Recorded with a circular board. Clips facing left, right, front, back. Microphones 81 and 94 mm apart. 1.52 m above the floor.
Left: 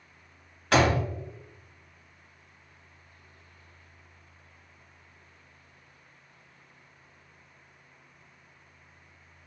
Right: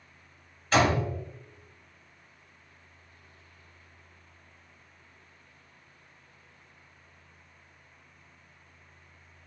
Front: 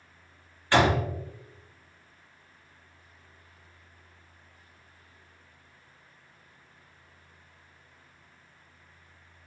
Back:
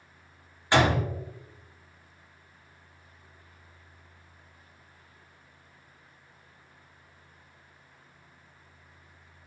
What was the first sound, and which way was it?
A door slam, 110° left.